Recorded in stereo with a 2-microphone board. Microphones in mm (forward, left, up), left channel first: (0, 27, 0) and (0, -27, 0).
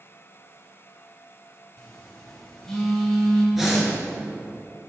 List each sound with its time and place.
1.8 s a phone buzzing: 10° left (ahead or behind), 1.6 m
3.5 s breathing: 5° right (ahead or behind), 1.7 m